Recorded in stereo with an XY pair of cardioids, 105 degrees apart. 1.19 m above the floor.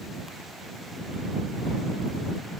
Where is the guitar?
No guitar in this recording.